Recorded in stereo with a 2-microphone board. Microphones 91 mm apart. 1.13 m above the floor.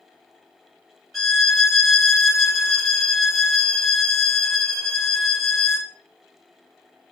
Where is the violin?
Centre (ahead or behind), 0.7 m.